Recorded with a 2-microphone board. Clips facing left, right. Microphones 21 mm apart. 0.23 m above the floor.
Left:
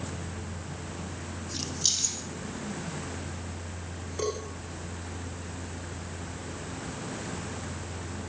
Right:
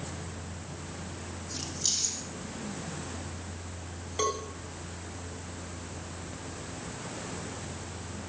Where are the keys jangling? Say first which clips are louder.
Left 3 dB; 25° left (ahead or behind), 6 m.